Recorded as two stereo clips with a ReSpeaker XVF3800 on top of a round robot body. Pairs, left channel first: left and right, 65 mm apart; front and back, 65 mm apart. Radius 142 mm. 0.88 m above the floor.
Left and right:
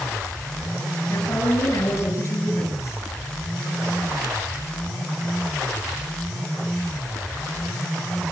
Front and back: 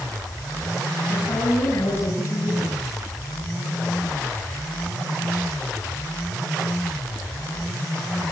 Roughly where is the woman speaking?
Ahead left.